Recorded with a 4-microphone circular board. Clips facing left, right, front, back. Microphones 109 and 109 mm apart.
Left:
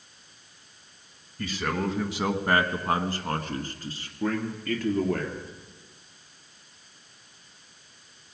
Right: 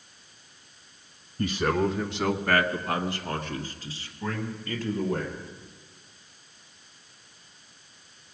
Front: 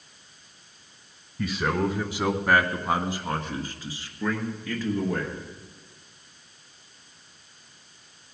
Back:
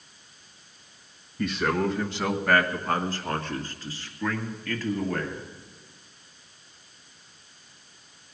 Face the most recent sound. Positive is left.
turn(degrees=75)